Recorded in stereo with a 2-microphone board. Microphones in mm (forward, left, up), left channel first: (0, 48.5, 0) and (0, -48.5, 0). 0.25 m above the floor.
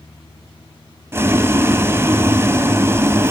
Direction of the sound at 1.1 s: 25° right (ahead or behind).